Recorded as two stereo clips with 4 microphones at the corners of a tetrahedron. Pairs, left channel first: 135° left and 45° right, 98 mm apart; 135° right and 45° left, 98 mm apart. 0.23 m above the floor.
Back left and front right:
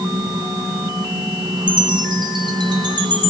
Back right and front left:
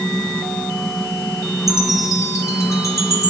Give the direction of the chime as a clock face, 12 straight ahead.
3 o'clock.